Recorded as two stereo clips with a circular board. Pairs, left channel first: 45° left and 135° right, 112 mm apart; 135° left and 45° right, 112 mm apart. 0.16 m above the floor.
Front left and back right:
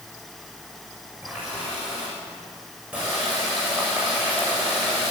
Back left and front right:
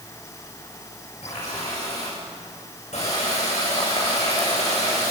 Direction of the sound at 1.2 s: 145° left.